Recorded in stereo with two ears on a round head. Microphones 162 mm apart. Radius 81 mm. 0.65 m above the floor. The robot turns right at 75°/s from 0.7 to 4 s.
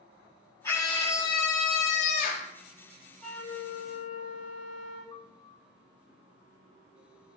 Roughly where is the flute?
Ahead.